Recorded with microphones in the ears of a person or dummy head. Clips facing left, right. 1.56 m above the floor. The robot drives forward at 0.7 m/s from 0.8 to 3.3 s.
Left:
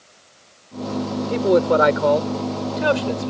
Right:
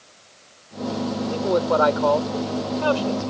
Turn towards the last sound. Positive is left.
turn(degrees=30)  # may be behind; listen again after turning